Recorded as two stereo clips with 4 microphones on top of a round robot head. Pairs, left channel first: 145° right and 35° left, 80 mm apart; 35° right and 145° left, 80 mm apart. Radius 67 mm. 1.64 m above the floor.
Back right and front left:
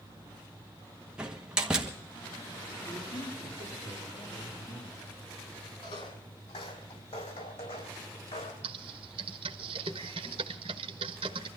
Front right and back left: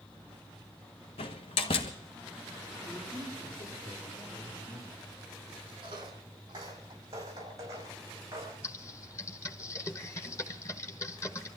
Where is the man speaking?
120° right, 6 m.